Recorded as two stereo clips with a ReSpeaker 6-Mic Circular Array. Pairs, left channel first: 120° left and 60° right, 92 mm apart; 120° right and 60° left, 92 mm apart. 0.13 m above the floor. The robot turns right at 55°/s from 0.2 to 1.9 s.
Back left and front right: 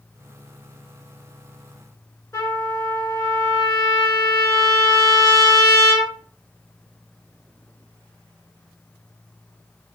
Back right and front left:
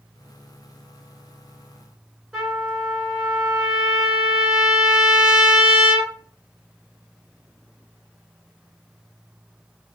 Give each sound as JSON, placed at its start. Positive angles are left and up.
{"t": 2.3, "sound": "a trumpet", "azimuth_deg": 140, "distance_m": 1.3}